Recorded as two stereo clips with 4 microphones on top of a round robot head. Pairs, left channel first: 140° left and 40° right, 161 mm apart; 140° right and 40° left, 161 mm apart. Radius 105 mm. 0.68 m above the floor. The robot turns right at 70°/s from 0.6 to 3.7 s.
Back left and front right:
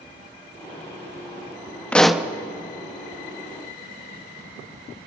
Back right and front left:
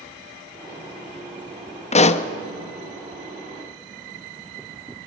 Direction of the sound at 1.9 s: 145° right.